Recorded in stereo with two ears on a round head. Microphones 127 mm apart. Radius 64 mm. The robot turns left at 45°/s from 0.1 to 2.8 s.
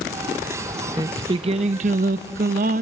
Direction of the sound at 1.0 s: 25° right.